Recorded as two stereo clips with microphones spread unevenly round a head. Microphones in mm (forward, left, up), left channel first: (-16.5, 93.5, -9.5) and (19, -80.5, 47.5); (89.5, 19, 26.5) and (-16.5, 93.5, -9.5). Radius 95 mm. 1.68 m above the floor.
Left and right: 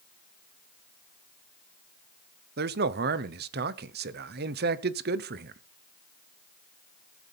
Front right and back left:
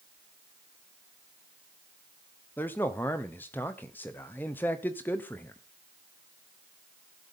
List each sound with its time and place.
2.6 s a man speaking: 115° right, 0.8 m